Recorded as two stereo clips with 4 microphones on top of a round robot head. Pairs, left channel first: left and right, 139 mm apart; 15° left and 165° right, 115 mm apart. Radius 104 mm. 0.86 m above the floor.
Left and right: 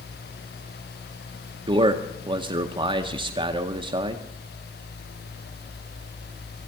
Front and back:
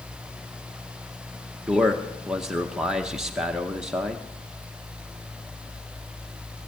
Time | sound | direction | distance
1.7 | a man speaking | 85° right | 0.9 m